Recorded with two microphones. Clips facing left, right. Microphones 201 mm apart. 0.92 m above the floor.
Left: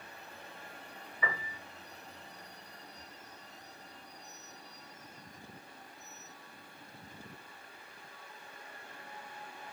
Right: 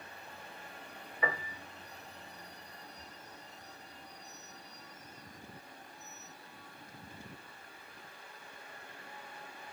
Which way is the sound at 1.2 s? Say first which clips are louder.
Right 3 dB; 60° right (ahead or behind).